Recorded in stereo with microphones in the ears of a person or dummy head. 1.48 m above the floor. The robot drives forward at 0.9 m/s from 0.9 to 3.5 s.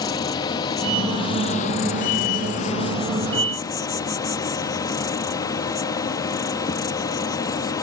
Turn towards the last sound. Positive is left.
turn(degrees=20)  # may be behind; listen again after turning